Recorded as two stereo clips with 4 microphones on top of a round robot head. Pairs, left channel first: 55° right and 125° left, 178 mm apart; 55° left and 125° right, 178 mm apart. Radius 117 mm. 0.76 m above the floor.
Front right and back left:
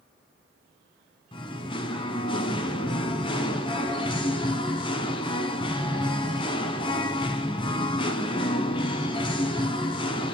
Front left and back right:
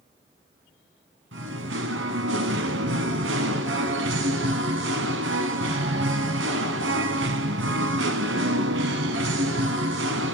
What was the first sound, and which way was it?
Singing, 115° right.